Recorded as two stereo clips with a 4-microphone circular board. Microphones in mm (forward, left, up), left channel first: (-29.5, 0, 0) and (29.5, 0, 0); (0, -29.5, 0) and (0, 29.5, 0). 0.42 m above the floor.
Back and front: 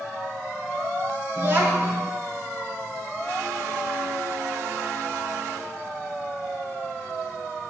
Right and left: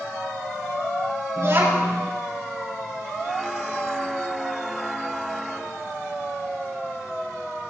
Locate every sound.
1.4 s a child speaking: 55° left, 3 m